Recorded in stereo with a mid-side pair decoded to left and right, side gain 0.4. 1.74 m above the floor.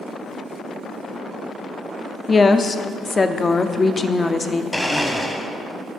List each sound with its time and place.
2.3 s a woman speaking: 35° left, 0.6 m
4.7 s a blender: 5° left, 0.9 m